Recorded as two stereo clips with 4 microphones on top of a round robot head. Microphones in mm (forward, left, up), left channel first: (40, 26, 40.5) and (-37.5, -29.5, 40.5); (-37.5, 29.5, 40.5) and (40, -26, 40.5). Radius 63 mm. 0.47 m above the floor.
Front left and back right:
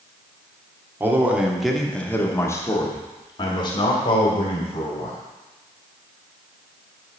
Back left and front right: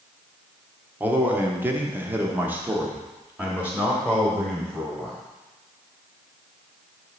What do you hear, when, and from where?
1.0 s a man speaking: 95° right, 1.1 m; by 5.2 s 45° left, 2.5 m